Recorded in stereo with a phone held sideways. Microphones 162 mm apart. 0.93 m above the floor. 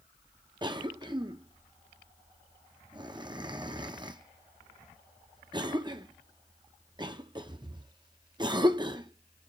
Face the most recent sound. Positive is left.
turn(degrees=-30)  # may be behind; listen again after turning